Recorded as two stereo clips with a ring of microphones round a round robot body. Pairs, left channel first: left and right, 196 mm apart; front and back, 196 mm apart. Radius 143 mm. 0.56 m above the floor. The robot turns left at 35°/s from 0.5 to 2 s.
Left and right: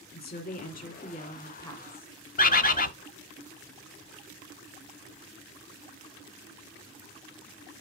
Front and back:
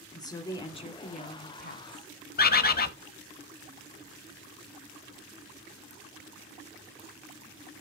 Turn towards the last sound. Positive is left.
turn(degrees=40)